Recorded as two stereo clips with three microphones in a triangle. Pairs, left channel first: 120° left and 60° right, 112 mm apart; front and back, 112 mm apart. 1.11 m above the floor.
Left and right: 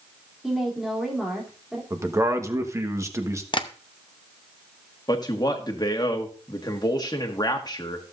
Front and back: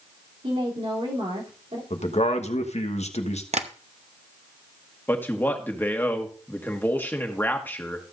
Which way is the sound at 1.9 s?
5° left.